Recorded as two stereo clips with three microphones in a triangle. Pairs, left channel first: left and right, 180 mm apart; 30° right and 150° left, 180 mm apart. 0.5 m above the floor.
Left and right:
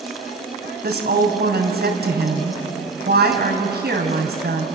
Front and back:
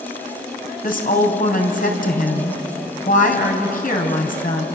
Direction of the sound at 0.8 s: 65° right.